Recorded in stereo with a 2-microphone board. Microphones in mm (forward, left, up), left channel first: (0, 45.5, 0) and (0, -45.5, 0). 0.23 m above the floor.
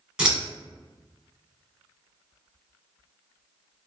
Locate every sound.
0.2 s scissors: 10° right (ahead or behind), 1.4 m